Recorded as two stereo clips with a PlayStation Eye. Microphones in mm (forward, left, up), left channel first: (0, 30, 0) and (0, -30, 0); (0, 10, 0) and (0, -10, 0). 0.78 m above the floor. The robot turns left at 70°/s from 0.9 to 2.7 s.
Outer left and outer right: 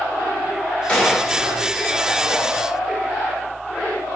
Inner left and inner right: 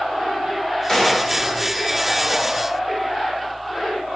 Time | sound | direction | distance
0.9 | a gunshot | 15° left (ahead or behind) | 0.6 m